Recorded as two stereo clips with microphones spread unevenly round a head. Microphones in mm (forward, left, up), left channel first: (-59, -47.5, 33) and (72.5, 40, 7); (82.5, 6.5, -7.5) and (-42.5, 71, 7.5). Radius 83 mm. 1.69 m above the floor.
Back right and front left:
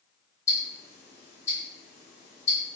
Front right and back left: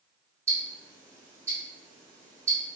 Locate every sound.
0.5 s ticking: 165° right, 1.4 m